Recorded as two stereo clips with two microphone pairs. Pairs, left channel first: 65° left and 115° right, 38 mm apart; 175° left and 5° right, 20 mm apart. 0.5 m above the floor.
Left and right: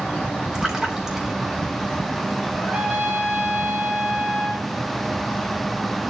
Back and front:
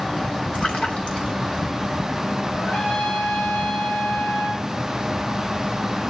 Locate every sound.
0.5 s a splash: 170° left, 3 m
2.5 s a trumpet: straight behind, 7.5 m